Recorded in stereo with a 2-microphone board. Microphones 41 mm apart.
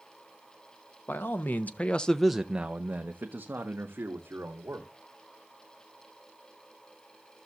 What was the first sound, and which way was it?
A man speaking, 65° left (ahead or behind).